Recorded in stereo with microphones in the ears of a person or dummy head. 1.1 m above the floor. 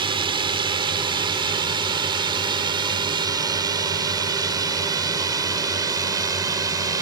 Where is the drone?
25° right (ahead or behind); by 7.0 s 15° right (ahead or behind).